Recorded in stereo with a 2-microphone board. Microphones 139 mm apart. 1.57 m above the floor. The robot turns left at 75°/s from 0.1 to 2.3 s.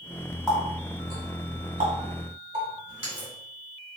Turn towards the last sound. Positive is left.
turn(degrees=-45)  # may be behind; listen again after turning